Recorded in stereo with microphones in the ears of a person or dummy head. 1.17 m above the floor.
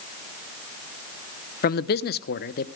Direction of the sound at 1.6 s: 45° left (ahead or behind).